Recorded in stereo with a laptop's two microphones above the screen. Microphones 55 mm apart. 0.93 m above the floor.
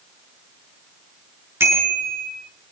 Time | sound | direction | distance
1.6 | a bicycle bell | 50° right (ahead or behind) | 9 m